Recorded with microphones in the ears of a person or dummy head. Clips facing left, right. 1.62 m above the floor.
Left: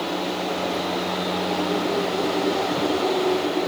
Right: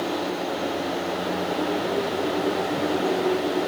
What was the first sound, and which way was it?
Only background noise.